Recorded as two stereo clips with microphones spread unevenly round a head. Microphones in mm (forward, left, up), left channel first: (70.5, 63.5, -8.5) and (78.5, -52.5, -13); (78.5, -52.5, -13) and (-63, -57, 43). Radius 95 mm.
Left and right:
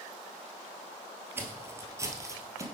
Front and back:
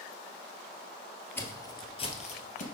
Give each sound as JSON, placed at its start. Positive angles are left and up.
{"t": 1.4, "sound": "footsteps", "azimuth_deg": -120, "distance_m": 1.4}